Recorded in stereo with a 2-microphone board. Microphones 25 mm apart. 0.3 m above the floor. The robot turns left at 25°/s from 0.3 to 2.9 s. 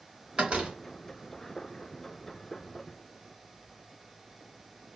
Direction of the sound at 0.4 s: 45° right (ahead or behind).